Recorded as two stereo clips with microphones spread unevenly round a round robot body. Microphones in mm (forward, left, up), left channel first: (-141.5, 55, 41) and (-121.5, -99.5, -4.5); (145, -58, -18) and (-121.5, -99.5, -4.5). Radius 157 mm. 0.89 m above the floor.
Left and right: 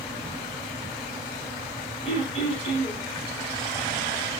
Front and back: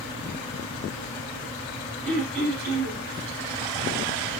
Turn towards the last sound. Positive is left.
turn(degrees=130)